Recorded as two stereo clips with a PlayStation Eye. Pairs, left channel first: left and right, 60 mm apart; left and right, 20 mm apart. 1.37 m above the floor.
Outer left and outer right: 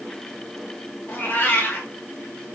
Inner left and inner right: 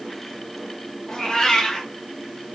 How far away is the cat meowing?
About 0.7 m.